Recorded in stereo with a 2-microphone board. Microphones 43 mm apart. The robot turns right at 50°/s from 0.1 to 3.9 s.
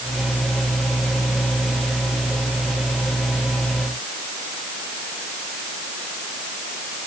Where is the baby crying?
I don't hear a baby crying.